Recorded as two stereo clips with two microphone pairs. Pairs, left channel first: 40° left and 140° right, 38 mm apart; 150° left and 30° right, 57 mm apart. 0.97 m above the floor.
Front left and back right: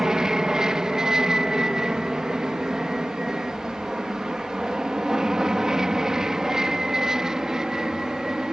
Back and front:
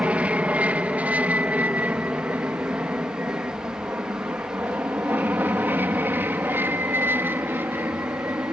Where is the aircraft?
80° right; by 8.5 s 70° right.